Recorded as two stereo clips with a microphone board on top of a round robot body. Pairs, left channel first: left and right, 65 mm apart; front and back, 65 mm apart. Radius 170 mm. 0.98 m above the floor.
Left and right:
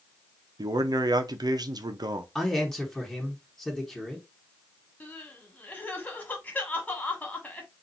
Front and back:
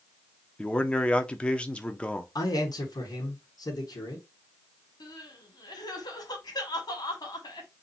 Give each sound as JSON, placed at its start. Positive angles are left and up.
{"t": 0.6, "sound": "a man speaking", "azimuth_deg": -75, "distance_m": 0.9}
{"t": 2.4, "sound": "a man speaking", "azimuth_deg": 10, "distance_m": 1.9}
{"t": 5.0, "sound": "crying", "azimuth_deg": 20, "distance_m": 1.5}